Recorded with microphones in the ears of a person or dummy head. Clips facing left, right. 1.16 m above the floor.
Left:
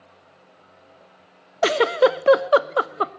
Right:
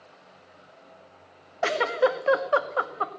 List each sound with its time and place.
1.6 s a giggle: 50° left (ahead or behind), 0.7 m